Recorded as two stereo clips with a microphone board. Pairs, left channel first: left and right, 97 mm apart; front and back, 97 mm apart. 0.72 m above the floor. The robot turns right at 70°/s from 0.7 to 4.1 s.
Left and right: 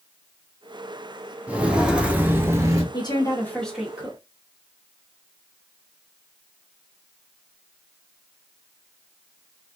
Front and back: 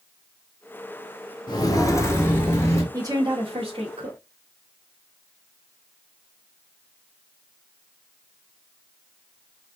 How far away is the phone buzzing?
No phone buzzing in this recording.